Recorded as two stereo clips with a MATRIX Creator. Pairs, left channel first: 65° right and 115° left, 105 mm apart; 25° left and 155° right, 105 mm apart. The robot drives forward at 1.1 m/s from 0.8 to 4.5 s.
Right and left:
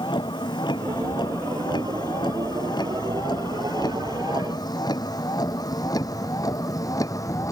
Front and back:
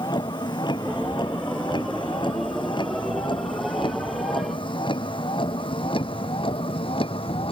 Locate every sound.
0.0 s a vehicle: 25° right; by 7.5 s 10° right